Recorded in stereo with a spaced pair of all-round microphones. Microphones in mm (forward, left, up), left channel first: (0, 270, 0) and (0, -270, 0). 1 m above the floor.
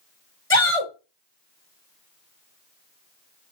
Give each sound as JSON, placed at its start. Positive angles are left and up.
{"t": 0.5, "sound": "a shout", "side_deg": 25, "distance_m": 3.0}